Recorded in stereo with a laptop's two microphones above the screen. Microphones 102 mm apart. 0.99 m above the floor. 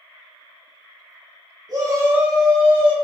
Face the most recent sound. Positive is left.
turn(degrees=25)  # may be behind; listen again after turning